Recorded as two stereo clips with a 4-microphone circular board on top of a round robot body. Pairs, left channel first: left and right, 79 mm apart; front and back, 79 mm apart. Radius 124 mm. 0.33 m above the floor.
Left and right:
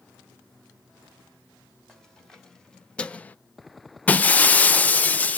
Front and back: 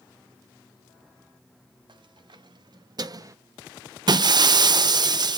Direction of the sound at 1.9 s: 175° left.